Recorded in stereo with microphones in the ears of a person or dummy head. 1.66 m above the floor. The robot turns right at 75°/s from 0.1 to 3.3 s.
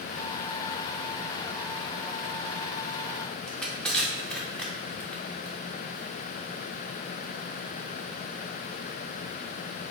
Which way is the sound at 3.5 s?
5° left (ahead or behind).